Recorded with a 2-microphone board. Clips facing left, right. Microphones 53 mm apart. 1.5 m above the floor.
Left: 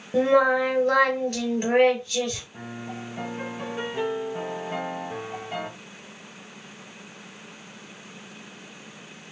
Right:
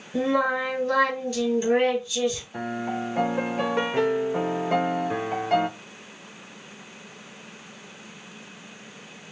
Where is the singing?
45° left (ahead or behind), 2 m.